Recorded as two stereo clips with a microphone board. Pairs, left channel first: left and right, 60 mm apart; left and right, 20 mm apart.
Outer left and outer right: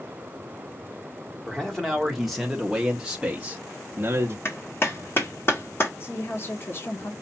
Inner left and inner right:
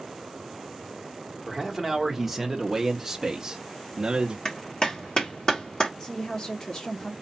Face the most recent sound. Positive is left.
turn(degrees=40)  # may be behind; listen again after turning